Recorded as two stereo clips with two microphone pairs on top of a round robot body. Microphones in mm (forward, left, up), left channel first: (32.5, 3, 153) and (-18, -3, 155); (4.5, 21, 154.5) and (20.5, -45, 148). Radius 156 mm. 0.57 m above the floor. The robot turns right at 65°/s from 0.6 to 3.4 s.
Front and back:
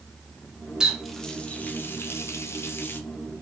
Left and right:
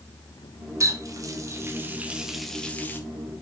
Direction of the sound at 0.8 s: 95° right.